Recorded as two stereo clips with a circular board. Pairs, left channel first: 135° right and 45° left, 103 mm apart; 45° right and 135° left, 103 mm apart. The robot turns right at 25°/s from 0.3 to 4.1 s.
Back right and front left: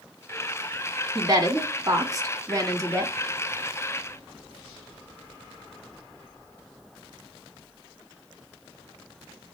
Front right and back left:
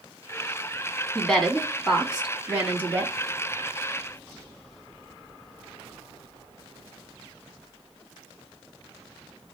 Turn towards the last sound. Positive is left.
turn(degrees=105)